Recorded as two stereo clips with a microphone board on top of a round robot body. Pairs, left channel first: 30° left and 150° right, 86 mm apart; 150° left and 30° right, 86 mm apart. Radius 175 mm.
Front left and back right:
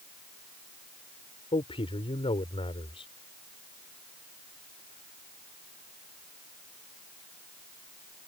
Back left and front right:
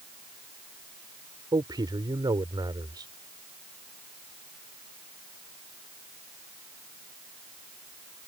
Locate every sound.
1.5 s a man speaking: 15° left